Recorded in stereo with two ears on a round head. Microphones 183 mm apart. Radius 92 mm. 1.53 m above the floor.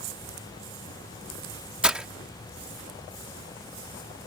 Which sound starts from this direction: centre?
Breaking glass, at 1.8 s.